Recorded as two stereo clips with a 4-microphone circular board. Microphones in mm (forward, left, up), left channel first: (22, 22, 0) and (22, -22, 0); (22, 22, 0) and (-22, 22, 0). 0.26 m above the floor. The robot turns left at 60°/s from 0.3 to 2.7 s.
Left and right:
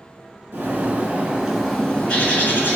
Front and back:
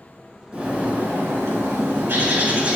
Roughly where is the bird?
Right.